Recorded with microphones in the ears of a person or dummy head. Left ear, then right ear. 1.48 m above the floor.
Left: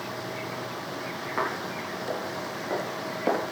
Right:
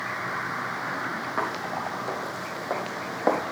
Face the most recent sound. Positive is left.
turn(degrees=-30)  # may be behind; listen again after turning